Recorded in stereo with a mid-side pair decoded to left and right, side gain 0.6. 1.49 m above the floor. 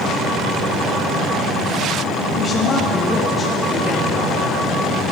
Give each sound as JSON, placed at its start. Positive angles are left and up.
{"t": 2.4, "sound": "a woman speaking", "azimuth_deg": 40, "distance_m": 1.4}